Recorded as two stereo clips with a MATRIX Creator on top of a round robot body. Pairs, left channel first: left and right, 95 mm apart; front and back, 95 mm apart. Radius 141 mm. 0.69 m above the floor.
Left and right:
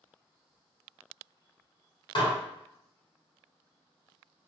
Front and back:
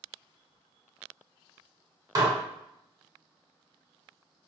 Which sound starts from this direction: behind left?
Dishes clattering, at 2.1 s.